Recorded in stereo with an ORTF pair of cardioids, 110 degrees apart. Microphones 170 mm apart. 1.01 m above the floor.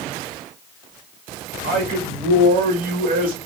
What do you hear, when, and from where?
1.6 s a man speaking: 60° right, 1.5 m